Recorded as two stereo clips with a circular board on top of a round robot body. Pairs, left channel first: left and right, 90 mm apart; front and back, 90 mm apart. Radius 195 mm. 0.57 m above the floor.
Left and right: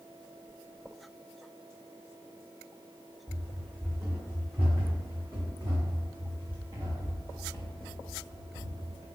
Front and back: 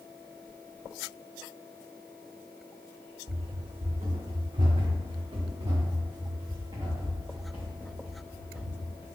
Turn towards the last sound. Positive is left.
turn(degrees=-120)